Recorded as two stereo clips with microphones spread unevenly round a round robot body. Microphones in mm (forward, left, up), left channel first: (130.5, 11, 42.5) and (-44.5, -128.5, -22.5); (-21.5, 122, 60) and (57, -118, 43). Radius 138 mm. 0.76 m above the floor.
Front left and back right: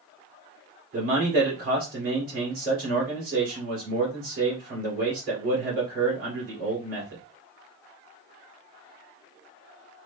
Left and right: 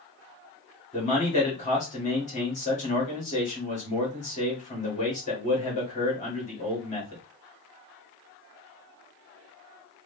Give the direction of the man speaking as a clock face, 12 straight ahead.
6 o'clock.